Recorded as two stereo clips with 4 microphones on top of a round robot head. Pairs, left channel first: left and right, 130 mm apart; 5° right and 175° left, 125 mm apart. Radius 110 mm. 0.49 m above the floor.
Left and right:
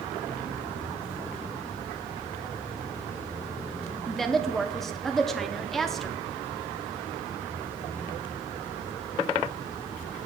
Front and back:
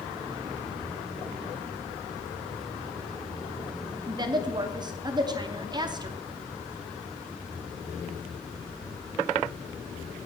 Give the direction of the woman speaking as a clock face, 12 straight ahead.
6 o'clock.